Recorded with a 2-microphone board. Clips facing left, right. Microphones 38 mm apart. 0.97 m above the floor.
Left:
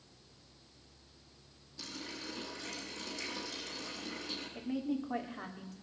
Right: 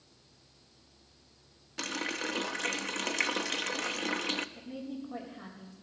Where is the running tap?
70° right (ahead or behind), 0.8 m.